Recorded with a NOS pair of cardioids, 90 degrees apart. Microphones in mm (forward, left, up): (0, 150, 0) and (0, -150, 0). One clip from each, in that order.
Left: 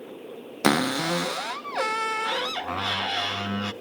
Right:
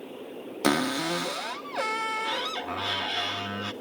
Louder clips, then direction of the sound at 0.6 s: Left 3 dB; 20° left.